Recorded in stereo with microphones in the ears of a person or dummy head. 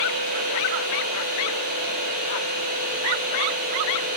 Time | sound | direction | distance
0.0 | a machine running | 45° right (ahead or behind) | 2.5 m